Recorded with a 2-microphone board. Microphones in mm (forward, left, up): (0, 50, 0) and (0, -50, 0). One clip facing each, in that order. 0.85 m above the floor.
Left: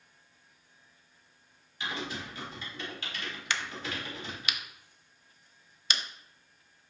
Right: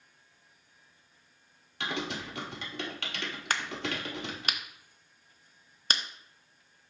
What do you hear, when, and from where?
1.8 s typing on a keyboard: 70° right (ahead or behind), 1.1 m
3.5 s a crack: 45° right (ahead or behind), 0.5 m